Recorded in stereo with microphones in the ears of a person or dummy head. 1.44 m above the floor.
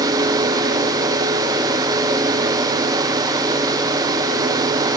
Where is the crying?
No crying in this recording.